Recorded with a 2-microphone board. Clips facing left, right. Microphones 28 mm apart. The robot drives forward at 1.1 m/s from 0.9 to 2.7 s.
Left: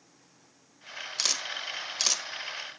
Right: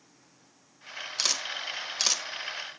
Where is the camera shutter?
10° right (ahead or behind), 1.4 m.